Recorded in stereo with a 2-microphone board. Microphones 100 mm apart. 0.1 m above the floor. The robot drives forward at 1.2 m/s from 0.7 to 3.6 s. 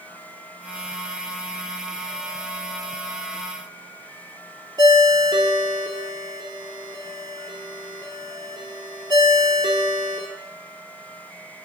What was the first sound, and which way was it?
A ringtone, 45° right (ahead or behind).